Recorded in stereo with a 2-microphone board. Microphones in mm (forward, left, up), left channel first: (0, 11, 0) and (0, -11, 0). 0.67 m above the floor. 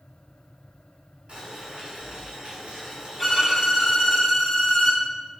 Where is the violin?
10° right (ahead or behind), 1.6 m.